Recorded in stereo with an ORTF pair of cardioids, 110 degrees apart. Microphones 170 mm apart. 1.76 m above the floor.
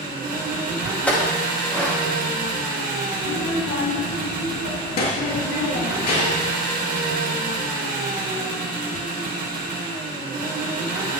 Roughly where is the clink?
Ahead.